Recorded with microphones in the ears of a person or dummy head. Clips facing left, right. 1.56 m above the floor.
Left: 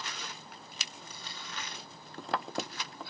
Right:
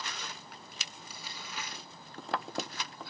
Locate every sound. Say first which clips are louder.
1.0 s crumpling: even; 15° right (ahead or behind), 2.5 m